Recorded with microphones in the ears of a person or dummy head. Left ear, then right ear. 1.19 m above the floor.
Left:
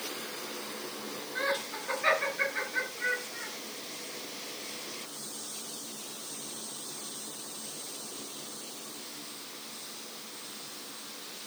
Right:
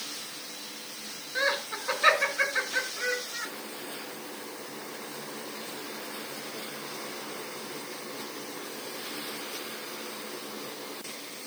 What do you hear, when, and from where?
1.4 s laughter: 40° right (ahead or behind), 4.5 m